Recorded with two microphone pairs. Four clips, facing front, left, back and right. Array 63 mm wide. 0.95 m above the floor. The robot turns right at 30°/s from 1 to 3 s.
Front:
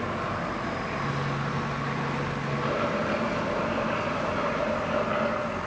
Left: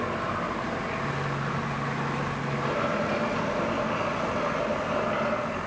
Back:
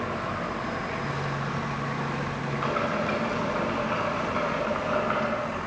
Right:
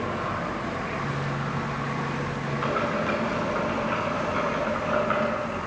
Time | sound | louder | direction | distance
2.6 | boiling | right 2 dB, back 1 dB | 140° right | 9.5 m